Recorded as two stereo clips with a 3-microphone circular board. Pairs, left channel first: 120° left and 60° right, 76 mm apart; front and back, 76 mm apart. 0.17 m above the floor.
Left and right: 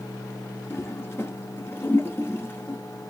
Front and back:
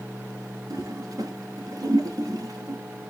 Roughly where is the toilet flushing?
Behind.